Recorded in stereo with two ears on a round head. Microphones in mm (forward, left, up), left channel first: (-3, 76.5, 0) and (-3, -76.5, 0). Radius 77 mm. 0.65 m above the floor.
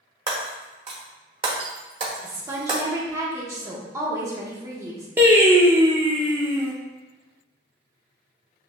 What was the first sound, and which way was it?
Breaking glass, 30° right (ahead or behind).